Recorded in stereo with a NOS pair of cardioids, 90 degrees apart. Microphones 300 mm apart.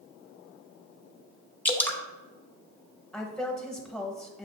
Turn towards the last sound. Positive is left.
turn(degrees=0)